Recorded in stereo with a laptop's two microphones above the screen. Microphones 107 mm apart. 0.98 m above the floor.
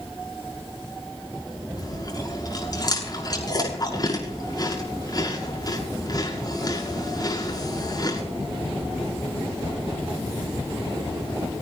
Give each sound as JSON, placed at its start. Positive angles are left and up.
{"t": 1.8, "sound": "chewing", "side_deg": 40, "distance_m": 7.0}